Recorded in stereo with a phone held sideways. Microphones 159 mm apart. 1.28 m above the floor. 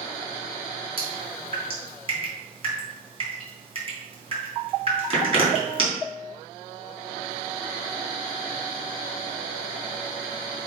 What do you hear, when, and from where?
1.0 s dripping: 35° right (ahead or behind), 3.5 m